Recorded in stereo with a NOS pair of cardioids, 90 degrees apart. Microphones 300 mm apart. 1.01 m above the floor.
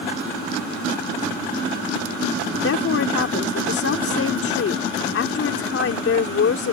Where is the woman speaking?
50° left.